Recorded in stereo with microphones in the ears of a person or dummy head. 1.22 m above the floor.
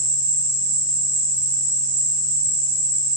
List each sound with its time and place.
0.0 s an insect: 75° right (ahead or behind), 0.8 m